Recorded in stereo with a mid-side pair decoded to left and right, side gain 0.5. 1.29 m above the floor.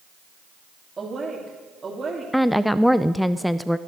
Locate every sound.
1.0 s a woman speaking: 30° right, 3 m
2.3 s a woman speaking: straight ahead, 0.5 m